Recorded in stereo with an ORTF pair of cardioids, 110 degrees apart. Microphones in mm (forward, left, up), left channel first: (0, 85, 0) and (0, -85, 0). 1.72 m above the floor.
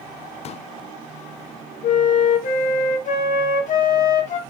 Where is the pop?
45° left, 0.7 m.